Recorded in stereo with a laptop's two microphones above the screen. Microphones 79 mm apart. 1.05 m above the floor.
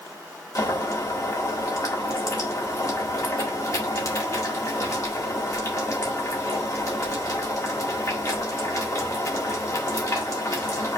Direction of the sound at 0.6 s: 45° left (ahead or behind).